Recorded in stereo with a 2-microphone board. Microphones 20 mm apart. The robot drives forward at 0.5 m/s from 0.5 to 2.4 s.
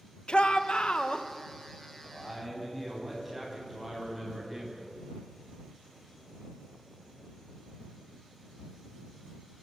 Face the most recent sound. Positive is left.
turn(degrees=-5)  # may be behind; listen again after turning